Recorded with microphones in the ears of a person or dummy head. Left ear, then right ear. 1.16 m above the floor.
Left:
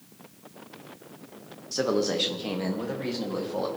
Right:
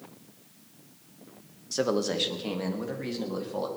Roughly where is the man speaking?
Centre.